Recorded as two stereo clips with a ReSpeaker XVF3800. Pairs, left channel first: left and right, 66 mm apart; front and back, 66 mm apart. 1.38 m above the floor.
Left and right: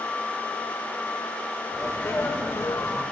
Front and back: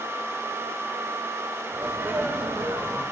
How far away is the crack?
No crack in this recording.